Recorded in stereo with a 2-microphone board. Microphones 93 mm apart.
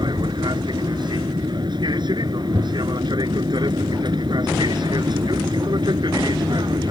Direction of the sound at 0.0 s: 55° right (ahead or behind).